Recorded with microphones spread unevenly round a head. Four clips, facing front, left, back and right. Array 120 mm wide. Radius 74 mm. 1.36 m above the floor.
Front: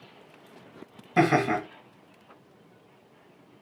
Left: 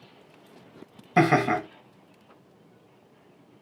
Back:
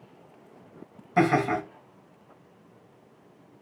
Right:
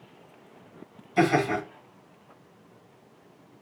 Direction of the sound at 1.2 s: 70° left.